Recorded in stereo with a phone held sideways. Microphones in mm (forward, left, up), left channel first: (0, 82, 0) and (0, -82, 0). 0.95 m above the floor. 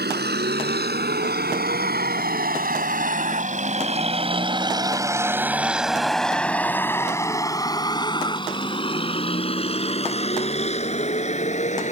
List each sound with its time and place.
0.0 s a vehicle: 85° right; by 11.9 s 45° left (ahead or behind)